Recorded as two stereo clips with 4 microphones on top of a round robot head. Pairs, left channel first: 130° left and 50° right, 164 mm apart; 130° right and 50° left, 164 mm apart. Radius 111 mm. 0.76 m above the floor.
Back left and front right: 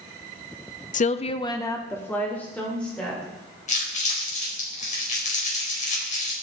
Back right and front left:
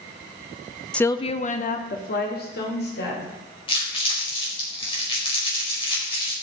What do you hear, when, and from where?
0.9 s a woman speaking: 145° left, 0.7 m; by 3.2 s 145° right, 3 m
3.7 s crumpling: 175° left, 4.5 m